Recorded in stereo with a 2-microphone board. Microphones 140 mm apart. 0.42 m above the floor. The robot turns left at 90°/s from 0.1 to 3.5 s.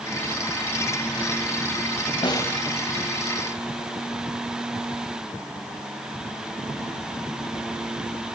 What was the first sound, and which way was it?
A snare drum, 40° left.